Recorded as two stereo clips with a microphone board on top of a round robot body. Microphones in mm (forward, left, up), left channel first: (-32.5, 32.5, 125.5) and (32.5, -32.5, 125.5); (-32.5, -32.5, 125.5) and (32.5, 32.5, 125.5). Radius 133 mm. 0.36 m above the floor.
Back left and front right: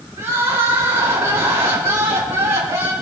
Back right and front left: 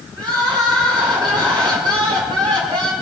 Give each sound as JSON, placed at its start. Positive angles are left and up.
{"t": 0.2, "sound": "crying", "azimuth_deg": 15, "distance_m": 5.5}